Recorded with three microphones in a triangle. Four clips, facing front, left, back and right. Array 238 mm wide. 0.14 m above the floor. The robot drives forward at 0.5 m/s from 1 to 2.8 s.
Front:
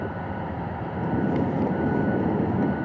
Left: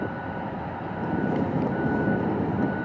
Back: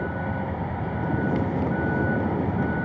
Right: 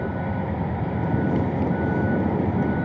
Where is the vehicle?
100° right.